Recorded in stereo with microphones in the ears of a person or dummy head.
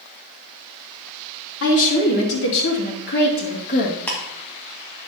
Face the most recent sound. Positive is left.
turn(degrees=10)  # may be behind; listen again after turning